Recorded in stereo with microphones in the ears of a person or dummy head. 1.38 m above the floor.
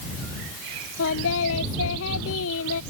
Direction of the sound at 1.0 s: 80° left.